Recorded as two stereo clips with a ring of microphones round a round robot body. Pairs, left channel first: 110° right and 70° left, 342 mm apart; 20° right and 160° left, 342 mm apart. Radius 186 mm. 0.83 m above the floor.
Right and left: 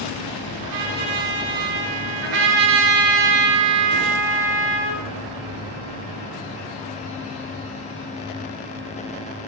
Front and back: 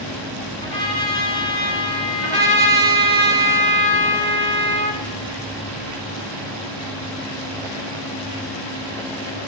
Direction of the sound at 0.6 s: 50° left.